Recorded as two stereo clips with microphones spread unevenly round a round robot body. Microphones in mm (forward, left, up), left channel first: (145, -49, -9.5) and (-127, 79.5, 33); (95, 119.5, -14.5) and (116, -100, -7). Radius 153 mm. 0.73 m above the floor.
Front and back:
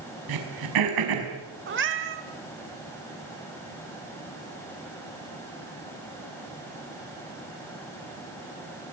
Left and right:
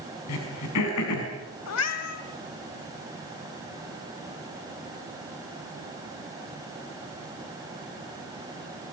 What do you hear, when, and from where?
0.3 s throat clearing: 140° left, 5.5 m
1.7 s a cat meowing: 100° left, 2.5 m